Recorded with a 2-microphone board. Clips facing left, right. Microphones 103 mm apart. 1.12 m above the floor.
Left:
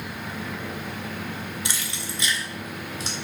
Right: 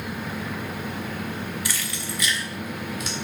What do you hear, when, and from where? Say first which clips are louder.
1.6 s keys jangling: right 2 dB; 25° left (ahead or behind), 1.2 m; by 3.1 s 30° left (ahead or behind), 2 m